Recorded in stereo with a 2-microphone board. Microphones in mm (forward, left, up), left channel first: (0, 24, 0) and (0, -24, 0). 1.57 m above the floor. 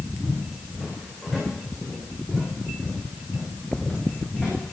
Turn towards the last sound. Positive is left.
turn(degrees=20)  # may be behind; listen again after turning